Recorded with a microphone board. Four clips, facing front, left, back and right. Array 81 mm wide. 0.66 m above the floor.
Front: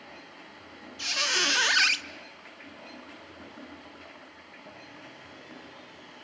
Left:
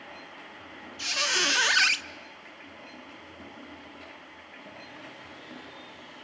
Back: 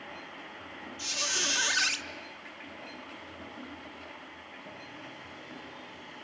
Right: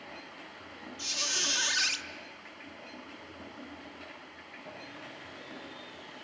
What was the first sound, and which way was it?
A squeak, 50° left.